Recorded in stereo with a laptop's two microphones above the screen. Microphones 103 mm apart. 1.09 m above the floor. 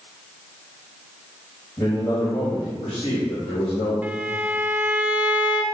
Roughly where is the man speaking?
Left.